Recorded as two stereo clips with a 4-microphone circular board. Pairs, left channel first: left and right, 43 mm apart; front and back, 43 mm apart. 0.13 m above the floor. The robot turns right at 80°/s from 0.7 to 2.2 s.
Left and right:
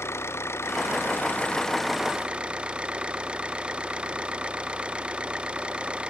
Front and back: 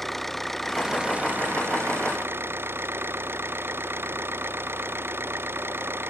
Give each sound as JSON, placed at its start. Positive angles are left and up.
{"t": 0.0, "sound": "an engine running", "azimuth_deg": 85}